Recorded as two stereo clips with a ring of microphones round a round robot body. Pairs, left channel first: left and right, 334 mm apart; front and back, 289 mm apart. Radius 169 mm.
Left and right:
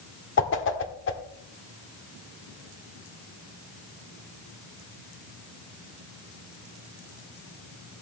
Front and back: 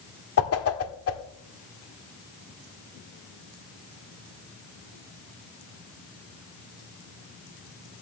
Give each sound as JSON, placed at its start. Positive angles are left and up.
{"t": 0.4, "sound": "a whoosh", "azimuth_deg": 35, "distance_m": 1.5}